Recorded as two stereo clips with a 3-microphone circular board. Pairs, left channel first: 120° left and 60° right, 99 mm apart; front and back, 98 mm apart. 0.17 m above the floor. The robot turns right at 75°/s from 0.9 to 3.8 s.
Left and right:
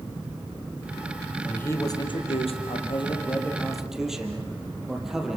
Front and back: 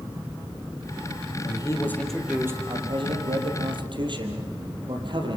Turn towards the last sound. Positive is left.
turn(degrees=-145)